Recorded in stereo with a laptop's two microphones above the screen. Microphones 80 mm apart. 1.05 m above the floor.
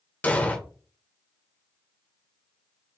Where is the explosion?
20° left (ahead or behind), 0.8 m.